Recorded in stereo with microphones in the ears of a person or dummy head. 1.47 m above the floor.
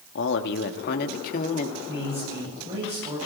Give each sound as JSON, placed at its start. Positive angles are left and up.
{"t": 0.1, "sound": "a man speaking", "side_deg": 70, "distance_m": 2.5}
{"t": 1.9, "sound": "a man speaking", "side_deg": -25, "distance_m": 9.5}